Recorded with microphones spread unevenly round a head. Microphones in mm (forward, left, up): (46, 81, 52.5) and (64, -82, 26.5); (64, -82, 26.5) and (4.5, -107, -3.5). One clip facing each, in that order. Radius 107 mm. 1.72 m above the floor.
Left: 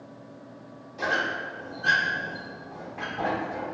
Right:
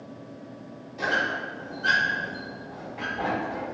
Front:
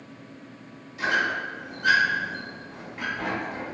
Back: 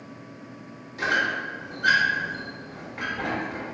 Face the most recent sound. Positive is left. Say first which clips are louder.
# even, even
turn(degrees=175)